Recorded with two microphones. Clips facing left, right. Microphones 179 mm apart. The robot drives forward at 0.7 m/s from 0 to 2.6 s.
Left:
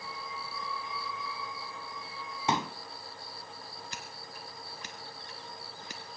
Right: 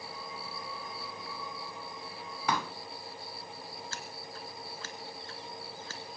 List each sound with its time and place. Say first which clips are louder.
2.5 s a pop: left 2 dB; 25° left (ahead or behind), 0.5 m; by 2.7 s 20° left (ahead or behind), 0.6 m
3.9 s scissors: right 2 dB; 15° left (ahead or behind), 1.4 m